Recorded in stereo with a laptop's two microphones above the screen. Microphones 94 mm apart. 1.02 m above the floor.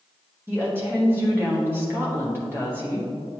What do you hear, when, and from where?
0.5 s a woman speaking: 20° right (ahead or behind), 1.4 m